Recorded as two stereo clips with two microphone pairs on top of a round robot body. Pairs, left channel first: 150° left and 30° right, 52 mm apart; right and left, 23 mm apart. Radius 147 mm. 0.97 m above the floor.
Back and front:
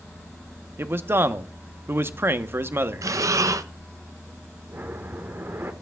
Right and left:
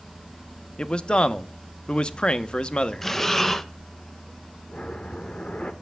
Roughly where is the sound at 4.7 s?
Ahead right.